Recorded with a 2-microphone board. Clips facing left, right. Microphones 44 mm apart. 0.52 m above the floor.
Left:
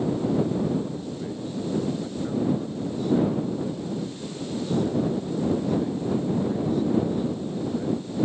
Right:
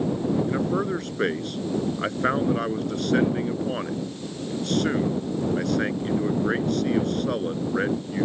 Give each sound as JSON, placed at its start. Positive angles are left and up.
{"t": 0.5, "sound": "a man speaking", "side_deg": -75}